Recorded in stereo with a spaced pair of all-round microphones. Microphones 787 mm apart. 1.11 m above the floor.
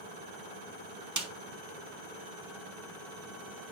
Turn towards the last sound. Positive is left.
turn(degrees=-25)  # may be behind; listen again after turning